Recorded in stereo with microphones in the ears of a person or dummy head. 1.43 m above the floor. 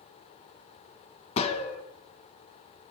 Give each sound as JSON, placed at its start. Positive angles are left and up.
{"t": 1.4, "sound": "a gunshot", "side_deg": 35, "distance_m": 1.1}